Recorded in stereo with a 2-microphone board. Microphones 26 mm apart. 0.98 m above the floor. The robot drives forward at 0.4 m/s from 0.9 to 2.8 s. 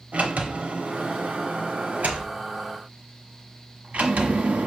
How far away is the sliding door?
About 1.3 m.